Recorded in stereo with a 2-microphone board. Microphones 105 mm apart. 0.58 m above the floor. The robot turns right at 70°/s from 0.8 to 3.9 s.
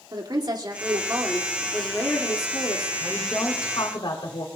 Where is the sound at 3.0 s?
Straight ahead, 2.5 m; by 4.5 s 65° left, 2.5 m.